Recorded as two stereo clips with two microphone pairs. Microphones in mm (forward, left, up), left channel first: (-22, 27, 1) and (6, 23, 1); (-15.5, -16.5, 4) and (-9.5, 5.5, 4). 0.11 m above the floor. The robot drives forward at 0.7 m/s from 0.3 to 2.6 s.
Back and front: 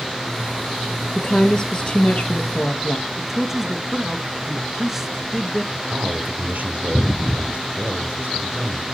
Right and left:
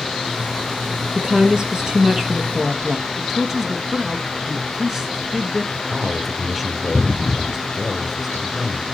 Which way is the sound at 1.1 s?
115° left.